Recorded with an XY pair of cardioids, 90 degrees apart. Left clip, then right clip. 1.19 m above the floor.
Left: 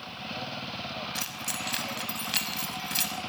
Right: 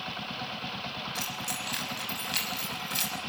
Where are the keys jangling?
30° left, 6 m.